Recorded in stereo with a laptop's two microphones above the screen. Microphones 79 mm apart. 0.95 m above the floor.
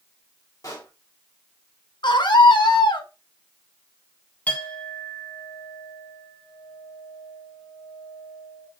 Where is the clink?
20° left (ahead or behind), 2.5 m.